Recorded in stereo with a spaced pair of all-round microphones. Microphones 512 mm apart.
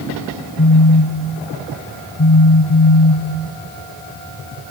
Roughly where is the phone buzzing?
Left.